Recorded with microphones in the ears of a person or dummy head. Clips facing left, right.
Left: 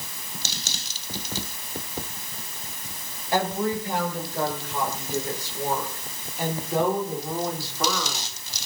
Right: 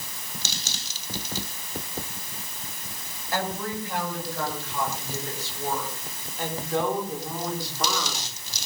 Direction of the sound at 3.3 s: 20° left (ahead or behind).